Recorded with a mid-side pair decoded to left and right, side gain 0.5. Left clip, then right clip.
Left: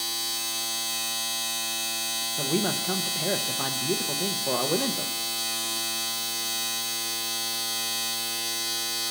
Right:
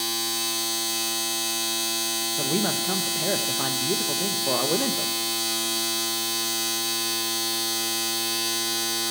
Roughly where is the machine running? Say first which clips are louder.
Right 3 dB; ahead.